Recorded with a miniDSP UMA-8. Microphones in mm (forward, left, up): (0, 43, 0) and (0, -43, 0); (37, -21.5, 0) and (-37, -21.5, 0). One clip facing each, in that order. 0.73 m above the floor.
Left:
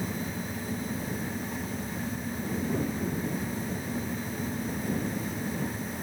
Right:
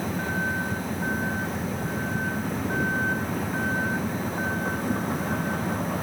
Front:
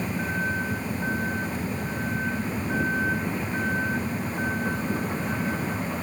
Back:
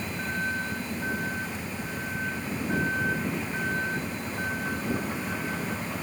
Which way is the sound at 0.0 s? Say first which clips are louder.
Right 6 dB, front 3 dB; 80° right.